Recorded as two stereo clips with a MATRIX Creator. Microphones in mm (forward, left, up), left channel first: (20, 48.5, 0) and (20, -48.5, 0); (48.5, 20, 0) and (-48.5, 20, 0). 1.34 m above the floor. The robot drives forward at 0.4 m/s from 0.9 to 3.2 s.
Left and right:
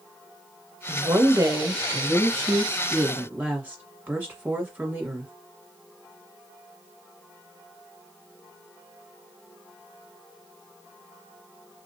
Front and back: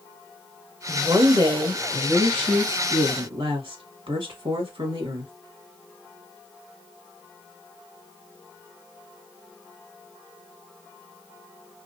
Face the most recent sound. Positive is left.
turn(degrees=-160)